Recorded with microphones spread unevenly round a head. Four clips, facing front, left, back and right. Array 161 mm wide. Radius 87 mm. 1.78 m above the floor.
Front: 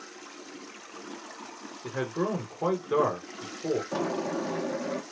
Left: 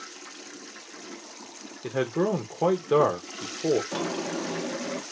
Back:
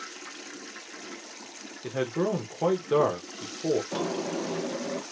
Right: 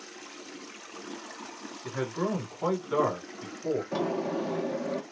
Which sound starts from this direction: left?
A man speaking, at 1.8 s.